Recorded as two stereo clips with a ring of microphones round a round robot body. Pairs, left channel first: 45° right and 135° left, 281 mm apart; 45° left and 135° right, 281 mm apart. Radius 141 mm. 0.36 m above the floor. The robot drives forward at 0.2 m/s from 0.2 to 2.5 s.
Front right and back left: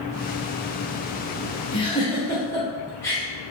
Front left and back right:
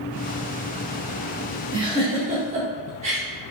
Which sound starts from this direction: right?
A giggle, at 1.7 s.